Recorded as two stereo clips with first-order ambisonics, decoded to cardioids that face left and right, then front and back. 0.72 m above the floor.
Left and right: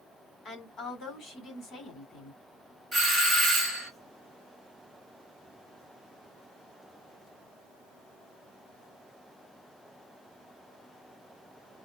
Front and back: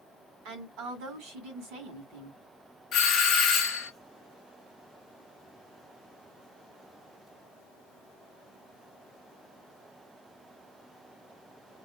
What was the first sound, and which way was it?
A woman speaking, 160° left.